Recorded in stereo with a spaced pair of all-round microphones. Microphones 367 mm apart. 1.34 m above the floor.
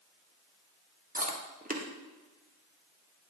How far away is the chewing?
About 0.8 m.